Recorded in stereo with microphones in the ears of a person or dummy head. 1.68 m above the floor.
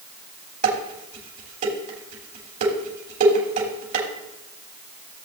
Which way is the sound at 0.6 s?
50° right (ahead or behind).